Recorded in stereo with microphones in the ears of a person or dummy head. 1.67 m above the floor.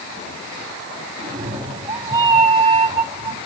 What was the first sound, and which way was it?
A cat meowing, 25° right (ahead or behind).